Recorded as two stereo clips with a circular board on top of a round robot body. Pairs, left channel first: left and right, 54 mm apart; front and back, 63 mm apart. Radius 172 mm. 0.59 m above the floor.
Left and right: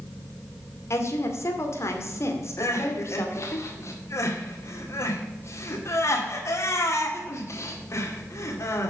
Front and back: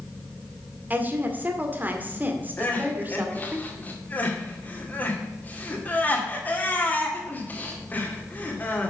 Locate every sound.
0.9 s a woman speaking: 120° left, 2.5 m
2.6 s crying: 60° left, 2.5 m